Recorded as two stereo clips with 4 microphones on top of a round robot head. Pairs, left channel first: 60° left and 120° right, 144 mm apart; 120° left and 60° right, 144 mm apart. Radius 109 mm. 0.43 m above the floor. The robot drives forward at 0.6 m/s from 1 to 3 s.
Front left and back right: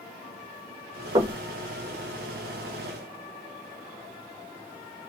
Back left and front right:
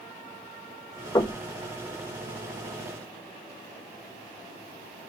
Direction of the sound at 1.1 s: 175° right.